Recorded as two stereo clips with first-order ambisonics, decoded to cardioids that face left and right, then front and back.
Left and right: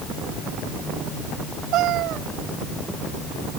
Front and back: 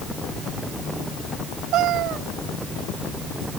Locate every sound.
1.7 s a cat meowing: 135° right